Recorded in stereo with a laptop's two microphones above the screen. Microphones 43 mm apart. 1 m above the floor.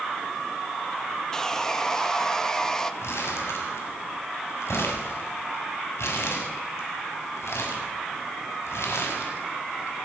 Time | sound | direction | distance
1.3 | sawing | 15° left (ahead or behind) | 1.6 m
3.0 | crumpling | 85° left | 7 m